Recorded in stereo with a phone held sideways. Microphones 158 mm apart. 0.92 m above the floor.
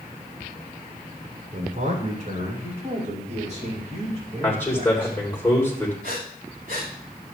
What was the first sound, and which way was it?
A man speaking, 55° right (ahead or behind).